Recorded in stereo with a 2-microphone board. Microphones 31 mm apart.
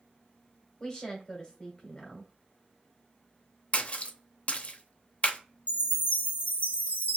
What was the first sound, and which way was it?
A woman speaking, 25° left (ahead or behind).